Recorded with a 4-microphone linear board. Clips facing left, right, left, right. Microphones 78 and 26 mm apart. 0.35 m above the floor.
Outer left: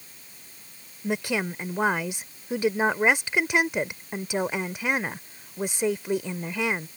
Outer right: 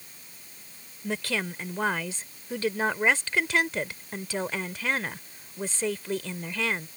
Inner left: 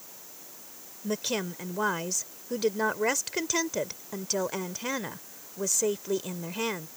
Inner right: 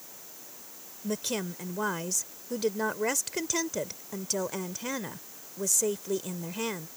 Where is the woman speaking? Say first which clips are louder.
Outer left 3 dB, inner left 2 dB; 20° left (ahead or behind).